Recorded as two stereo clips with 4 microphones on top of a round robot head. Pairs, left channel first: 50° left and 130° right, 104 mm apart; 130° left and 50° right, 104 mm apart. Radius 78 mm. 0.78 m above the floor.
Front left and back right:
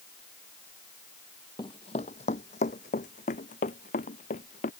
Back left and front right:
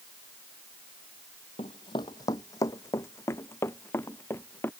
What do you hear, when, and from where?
1.6 s running footsteps: 95° left; by 4.7 s 55° left